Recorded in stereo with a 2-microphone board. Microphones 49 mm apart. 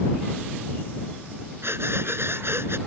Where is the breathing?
60° right (ahead or behind).